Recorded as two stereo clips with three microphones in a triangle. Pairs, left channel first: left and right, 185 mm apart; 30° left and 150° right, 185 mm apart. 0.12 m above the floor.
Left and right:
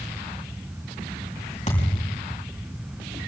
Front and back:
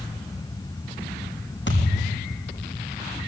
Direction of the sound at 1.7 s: 40° left.